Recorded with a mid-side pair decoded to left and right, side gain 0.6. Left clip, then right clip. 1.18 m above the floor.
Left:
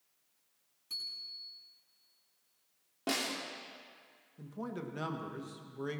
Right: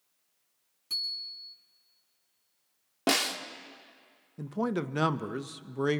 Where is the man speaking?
55° right, 1.0 m.